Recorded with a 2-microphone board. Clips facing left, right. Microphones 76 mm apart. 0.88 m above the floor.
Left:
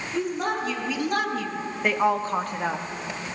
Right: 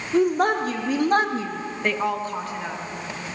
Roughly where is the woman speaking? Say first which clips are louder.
Right 8 dB; right.